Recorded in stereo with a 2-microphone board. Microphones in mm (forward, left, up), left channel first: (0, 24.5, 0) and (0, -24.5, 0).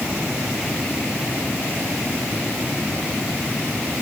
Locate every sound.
Only background noise.